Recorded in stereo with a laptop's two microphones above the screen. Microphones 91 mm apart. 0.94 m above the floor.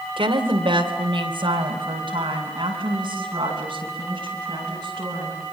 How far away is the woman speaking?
About 2.5 m.